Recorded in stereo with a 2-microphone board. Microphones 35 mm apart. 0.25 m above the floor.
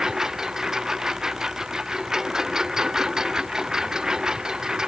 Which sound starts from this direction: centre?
A lawn mower, at 0.0 s.